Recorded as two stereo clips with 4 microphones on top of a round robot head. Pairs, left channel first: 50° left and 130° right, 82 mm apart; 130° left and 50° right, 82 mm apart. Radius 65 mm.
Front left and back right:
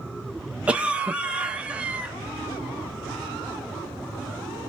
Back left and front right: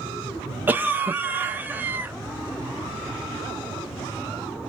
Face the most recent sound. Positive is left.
turn(degrees=-75)